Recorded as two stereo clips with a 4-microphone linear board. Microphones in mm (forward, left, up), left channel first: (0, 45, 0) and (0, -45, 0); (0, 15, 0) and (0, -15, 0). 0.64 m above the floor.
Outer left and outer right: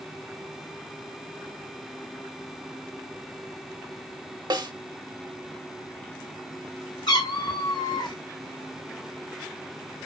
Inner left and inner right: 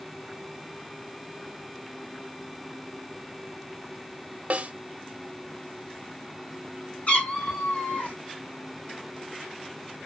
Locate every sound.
4.5 s a snare drum: 50° right (ahead or behind), 0.9 m
7.1 s a cat meowing: 55° left (ahead or behind), 3.5 m